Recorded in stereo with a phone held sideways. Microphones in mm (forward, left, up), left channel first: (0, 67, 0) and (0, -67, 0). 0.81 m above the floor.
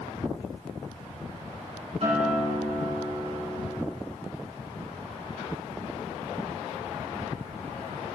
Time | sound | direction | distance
2.0 | a guitar | 55° right (ahead or behind) | 3 m